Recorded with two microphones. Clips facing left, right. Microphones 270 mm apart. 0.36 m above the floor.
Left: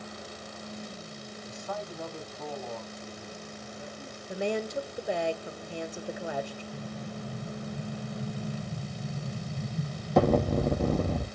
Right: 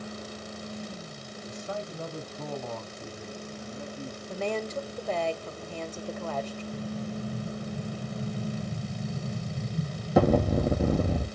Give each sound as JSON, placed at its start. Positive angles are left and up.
{"t": 1.5, "sound": "a man speaking", "side_deg": -15, "distance_m": 1.9}
{"t": 4.3, "sound": "a woman speaking", "side_deg": 15, "distance_m": 1.1}
{"t": 6.7, "sound": "an explosion", "side_deg": -5, "distance_m": 2.0}